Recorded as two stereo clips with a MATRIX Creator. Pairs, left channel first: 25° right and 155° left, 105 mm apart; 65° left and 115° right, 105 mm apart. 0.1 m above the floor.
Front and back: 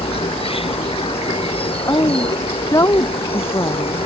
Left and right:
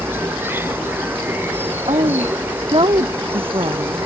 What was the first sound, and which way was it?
An insect, 45° right.